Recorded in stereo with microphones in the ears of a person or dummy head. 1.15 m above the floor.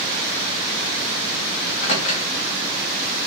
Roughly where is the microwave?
Left.